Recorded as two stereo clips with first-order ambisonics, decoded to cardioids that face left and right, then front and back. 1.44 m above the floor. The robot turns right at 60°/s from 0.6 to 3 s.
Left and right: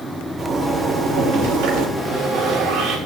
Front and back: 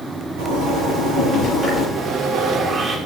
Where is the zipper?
165° right, 3.5 m; by 1.9 s 90° right, 3.5 m.